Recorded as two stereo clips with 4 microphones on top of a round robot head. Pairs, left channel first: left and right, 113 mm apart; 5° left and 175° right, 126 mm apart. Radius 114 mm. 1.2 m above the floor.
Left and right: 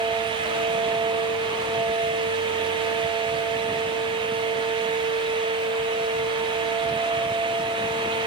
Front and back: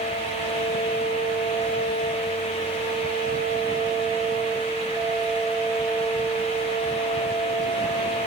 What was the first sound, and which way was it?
Only background noise.